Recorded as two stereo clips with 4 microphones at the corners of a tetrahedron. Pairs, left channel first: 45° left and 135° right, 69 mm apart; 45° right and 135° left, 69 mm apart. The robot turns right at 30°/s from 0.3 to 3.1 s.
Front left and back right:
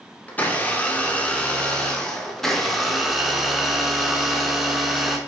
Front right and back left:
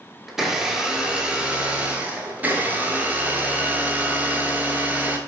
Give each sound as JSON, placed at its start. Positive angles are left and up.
{"t": 0.3, "sound": "a blender", "azimuth_deg": 55, "distance_m": 0.7}